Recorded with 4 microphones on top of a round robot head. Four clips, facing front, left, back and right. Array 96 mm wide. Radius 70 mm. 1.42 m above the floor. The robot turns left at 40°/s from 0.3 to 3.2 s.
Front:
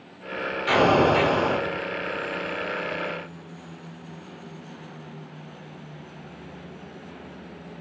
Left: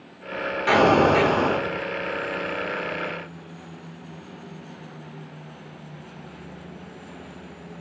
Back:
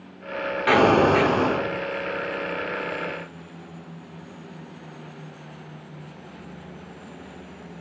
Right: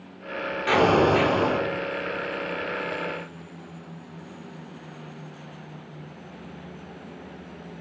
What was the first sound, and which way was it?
An explosion, 160° left.